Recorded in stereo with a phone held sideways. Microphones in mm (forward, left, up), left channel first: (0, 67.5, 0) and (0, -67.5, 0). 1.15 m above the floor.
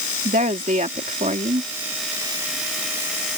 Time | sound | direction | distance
0.2 | a woman speaking | 75° right (ahead or behind) | ?